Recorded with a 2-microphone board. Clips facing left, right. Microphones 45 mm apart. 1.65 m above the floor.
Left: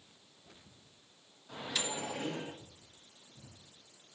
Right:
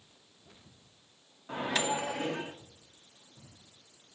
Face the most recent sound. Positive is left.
turn(degrees=-45)  # may be behind; listen again after turning